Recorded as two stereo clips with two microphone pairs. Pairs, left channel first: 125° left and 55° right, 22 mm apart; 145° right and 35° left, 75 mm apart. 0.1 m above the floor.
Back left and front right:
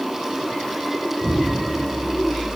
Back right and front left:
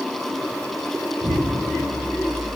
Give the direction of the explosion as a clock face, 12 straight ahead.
11 o'clock.